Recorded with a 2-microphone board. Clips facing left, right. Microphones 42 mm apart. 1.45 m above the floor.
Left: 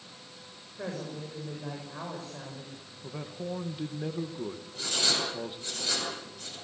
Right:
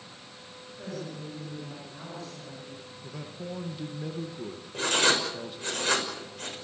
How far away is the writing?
About 6 m.